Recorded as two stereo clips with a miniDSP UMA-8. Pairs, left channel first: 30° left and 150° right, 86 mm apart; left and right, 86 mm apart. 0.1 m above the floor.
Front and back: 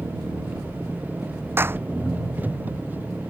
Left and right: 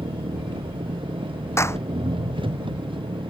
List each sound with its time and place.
0.0 s an engine running: 80° right
1.6 s a clap: 145° left